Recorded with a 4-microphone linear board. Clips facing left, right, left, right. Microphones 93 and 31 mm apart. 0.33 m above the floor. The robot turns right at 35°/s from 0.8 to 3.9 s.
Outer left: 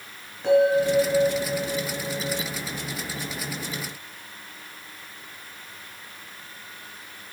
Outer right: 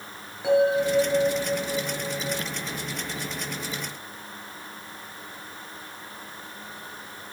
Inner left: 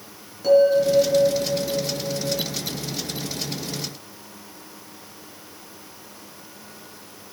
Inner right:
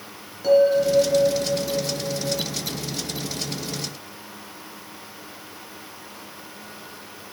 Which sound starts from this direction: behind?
A bell, at 0.4 s.